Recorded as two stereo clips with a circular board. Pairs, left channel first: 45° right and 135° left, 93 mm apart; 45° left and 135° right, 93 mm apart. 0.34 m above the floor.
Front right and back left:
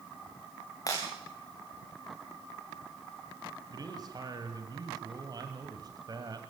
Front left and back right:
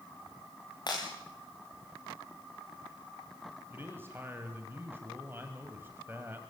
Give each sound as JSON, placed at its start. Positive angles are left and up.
{"t": 0.9, "sound": "breaking glass", "azimuth_deg": 5, "distance_m": 8.0}
{"t": 3.7, "sound": "a man speaking", "azimuth_deg": 165, "distance_m": 2.0}